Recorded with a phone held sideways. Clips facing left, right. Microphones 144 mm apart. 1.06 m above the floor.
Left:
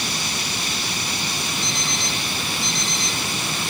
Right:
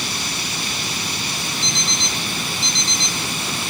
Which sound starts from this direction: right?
An alarm clock, at 1.6 s.